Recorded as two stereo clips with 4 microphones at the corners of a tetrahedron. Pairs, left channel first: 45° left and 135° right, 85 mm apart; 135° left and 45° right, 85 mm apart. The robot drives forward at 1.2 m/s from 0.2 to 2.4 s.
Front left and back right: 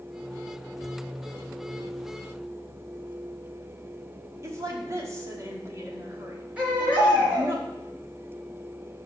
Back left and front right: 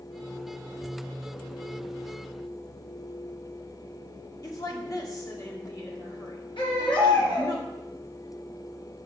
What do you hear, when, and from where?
4.4 s a woman speaking: 175° left, 1.7 m
6.6 s a baby crying: 150° left, 3.5 m